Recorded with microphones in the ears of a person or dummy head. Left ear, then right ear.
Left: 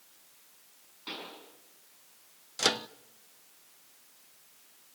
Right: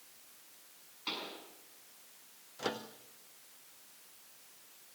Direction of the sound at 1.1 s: 20° right (ahead or behind).